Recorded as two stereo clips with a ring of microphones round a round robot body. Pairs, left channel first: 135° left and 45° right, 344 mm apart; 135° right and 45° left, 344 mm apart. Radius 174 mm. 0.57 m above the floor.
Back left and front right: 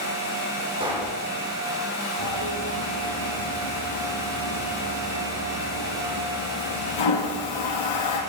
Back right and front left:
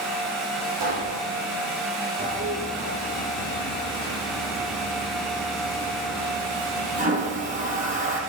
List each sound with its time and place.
0.8 s a pop: 30° left, 8 m
2.2 s a toilet flushing: 115° left, 3 m